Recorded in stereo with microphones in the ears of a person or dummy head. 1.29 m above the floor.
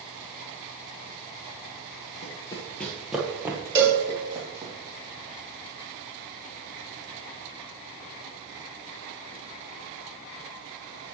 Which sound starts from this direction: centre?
A cowbell, at 3.8 s.